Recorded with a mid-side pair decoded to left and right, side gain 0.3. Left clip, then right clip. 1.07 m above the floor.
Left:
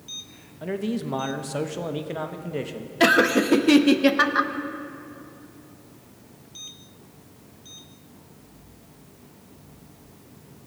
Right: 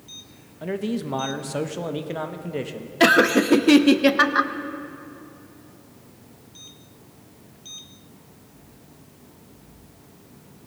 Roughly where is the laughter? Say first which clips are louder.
Right 2 dB; ahead.